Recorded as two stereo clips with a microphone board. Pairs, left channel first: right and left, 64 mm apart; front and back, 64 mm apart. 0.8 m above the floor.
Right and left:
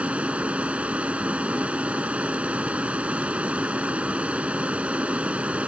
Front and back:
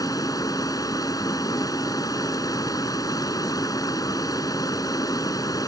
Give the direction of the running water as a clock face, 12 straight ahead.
11 o'clock.